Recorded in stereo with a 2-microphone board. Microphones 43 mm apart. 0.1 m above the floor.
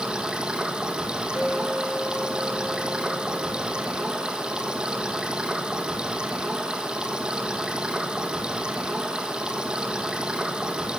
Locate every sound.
0.0 s running water: 20° right (ahead or behind), 1.2 m
1.4 s a clink: 60° left (ahead or behind), 3 m